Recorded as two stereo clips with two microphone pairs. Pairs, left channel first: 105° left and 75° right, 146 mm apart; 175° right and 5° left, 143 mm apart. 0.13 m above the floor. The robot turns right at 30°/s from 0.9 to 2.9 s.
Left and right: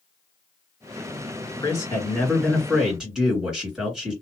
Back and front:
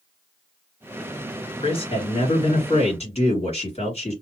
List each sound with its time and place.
1.6 s a man speaking: 160° left, 2 m; by 4.1 s 160° right, 2 m